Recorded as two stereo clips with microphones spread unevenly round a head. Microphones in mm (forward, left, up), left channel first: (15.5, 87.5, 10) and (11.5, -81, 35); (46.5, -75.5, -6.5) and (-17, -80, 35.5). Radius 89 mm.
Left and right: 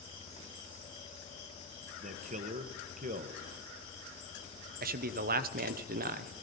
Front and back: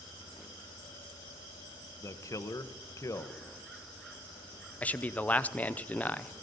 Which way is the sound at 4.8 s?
50° right.